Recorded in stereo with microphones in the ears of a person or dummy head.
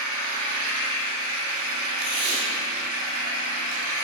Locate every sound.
0.0 s an engine running: 70° right (ahead or behind), 0.9 m
2.0 s tape being pulled: 90° right, 2.5 m